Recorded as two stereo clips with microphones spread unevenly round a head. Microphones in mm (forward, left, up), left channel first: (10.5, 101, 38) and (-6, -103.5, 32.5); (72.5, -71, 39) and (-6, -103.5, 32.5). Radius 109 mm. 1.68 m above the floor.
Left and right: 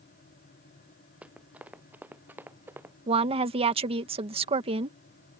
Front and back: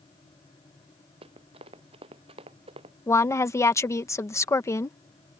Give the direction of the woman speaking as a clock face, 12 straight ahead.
1 o'clock.